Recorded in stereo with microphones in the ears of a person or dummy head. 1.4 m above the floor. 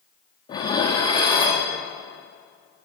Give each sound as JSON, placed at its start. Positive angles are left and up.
{"t": 0.5, "sound": "dishes clattering", "side_deg": 30, "distance_m": 1.3}